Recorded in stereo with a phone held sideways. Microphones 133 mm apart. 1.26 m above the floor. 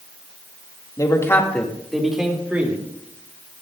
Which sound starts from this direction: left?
A man speaking, at 1.0 s.